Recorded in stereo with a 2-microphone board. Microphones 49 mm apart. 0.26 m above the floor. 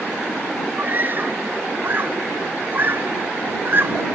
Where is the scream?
40° right (ahead or behind); by 4.1 s 45° right (ahead or behind).